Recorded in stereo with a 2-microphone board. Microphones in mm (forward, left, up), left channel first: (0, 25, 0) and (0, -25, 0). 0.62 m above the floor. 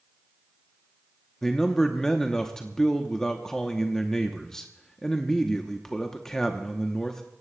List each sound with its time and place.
1.4 s a man speaking: 10° left (ahead or behind), 0.8 m